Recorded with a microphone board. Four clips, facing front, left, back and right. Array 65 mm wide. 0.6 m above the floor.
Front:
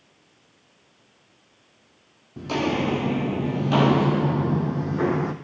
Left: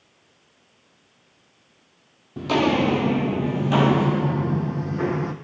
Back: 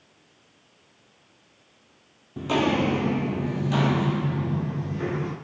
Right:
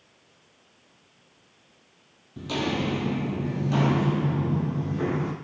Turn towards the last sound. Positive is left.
turn(degrees=15)